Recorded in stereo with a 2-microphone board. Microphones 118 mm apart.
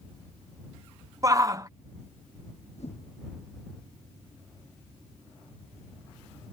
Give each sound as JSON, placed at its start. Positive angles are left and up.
{"t": 1.2, "sound": "a shout", "side_deg": -30}
{"t": 2.8, "sound": "a whoosh", "side_deg": 65}